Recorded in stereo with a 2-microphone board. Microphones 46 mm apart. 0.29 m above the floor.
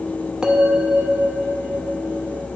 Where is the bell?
20° right (ahead or behind), 0.9 m.